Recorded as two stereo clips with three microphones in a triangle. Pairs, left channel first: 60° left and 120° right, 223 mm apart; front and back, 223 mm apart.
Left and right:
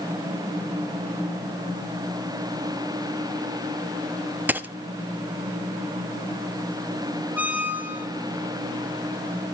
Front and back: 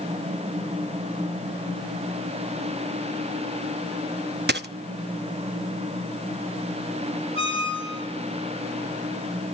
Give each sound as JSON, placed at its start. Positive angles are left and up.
{"t": 4.5, "sound": "a dropped coin", "azimuth_deg": 160, "distance_m": 0.6}
{"t": 7.3, "sound": "a squeak", "azimuth_deg": 160, "distance_m": 2.5}